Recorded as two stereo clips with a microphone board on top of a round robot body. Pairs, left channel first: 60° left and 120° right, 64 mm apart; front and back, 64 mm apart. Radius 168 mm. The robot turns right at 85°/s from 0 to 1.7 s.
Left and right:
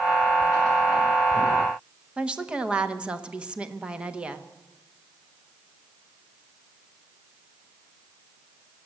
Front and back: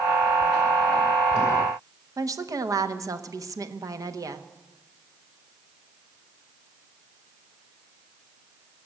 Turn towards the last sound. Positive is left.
turn(degrees=165)